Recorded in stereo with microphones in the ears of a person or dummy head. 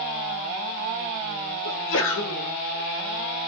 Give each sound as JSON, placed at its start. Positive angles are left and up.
{"t": 1.6, "sound": "a sneeze", "side_deg": 65, "distance_m": 0.8}